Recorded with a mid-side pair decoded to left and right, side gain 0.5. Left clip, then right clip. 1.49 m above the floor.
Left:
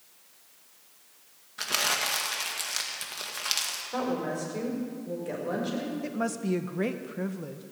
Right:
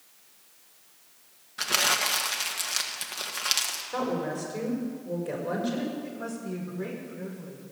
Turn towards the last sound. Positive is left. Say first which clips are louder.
# left 5 dB
turn(degrees=65)